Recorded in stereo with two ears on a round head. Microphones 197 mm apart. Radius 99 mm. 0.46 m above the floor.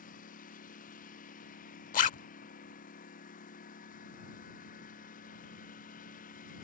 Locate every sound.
0.0 s a lawn mower: 40° left (ahead or behind)
1.9 s a zipper: 35° left (ahead or behind)